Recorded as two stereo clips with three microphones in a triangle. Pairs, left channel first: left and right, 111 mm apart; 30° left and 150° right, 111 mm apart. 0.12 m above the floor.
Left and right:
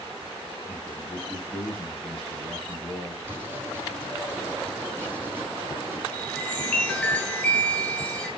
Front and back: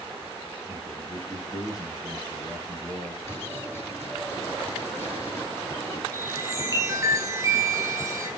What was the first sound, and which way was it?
A man speaking, 170° left.